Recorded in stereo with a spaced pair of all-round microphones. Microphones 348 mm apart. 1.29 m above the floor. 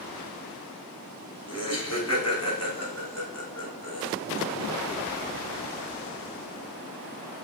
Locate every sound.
1.5 s laughter: 45° left (ahead or behind), 0.9 m